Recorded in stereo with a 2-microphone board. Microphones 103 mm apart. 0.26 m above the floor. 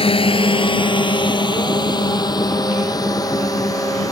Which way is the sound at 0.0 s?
60° left (ahead or behind).